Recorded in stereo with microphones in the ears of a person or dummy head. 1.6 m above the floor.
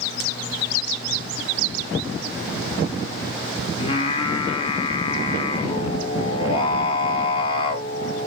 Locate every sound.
3.8 s singing: 30° left (ahead or behind), 0.6 m